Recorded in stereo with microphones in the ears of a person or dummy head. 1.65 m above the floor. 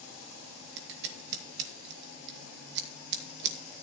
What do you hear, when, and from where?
0.8 s scissors: 60° right (ahead or behind), 1.9 m